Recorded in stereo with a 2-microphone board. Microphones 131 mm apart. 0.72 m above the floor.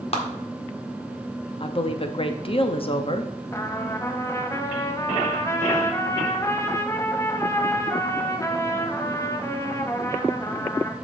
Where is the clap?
50° left (ahead or behind), 1.6 m.